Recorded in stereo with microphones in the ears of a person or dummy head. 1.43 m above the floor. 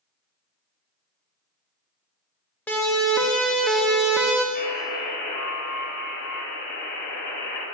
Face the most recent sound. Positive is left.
turn(degrees=55)  # may be behind; listen again after turning